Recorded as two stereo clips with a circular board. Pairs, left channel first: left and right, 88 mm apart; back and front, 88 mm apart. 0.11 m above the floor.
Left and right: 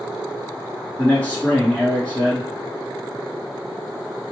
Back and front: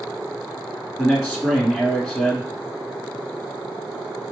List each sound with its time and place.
1.0 s a man speaking: 110° left, 1.3 m